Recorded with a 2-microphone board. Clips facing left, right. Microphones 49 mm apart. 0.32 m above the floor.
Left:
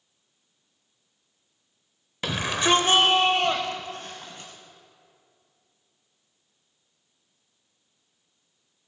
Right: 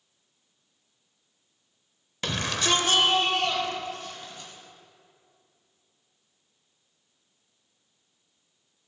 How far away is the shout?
About 0.8 m.